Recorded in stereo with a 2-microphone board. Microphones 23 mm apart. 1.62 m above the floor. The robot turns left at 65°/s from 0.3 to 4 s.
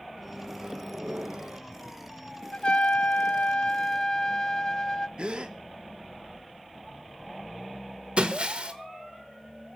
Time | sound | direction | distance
0.2 | a microwave | 10° right | 1.3 m
2.5 | a trumpet | 125° left | 0.7 m
5.2 | a gasp | 45° right (ahead or behind) | 1.5 m
8.2 | breaking glass | 50° right (ahead or behind) | 1.9 m